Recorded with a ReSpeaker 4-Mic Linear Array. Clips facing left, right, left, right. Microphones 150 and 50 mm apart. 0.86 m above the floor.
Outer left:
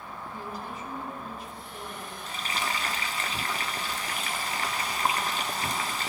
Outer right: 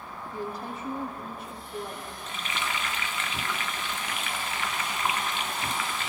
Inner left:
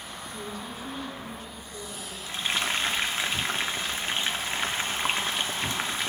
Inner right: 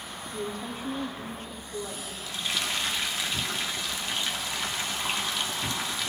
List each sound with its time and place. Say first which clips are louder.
0.3 s a woman speaking: outer right 5 dB, inner right 4 dB; 55° right (ahead or behind), 1.4 m
2.3 s frying: outer left 1 dB, inner left 3 dB; 35° left (ahead or behind), 0.7 m